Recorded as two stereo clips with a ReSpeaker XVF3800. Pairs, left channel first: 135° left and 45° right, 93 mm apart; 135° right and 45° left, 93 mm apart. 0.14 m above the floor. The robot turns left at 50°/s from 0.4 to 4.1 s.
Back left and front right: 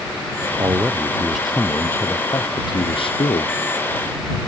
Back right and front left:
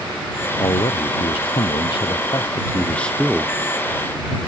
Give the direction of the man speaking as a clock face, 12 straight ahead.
3 o'clock.